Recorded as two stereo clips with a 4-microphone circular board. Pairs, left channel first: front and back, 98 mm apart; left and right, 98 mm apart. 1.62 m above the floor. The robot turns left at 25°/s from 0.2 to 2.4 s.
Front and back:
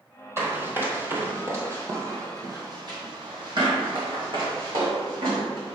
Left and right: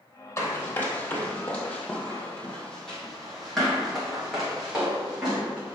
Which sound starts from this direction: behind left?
Running footsteps, at 0.4 s.